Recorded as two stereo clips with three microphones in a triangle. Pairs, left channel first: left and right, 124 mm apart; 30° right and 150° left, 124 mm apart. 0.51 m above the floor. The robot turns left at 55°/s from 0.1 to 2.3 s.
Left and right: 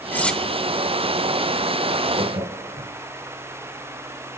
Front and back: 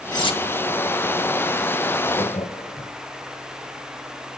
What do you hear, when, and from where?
0.1 s cutlery clinking: 20° left, 1.1 m; by 0.4 s 5° left, 1.1 m
2.1 s laughter: 70° right, 2.5 m; by 2.9 s 75° right, 2.5 m